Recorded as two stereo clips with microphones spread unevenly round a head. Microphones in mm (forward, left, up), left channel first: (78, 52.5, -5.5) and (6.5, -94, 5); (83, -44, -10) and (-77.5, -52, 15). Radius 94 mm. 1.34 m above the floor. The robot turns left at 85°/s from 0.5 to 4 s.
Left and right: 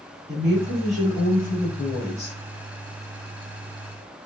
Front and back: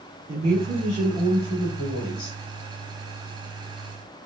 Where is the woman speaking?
160° left, 2.5 m; by 2.4 s straight ahead, 2.5 m.